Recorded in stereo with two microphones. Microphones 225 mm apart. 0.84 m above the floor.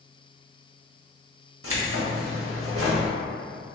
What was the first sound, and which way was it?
Keys jangling, 75° right (ahead or behind).